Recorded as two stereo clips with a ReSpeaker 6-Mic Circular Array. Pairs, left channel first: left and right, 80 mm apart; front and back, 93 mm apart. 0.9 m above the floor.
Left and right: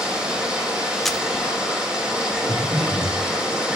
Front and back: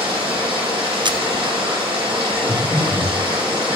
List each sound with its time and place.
0.0 s running water: 165° right, 3 m
1.1 s a camera shutter: 175° left, 0.5 m
2.5 s breathing: 100° right, 4 m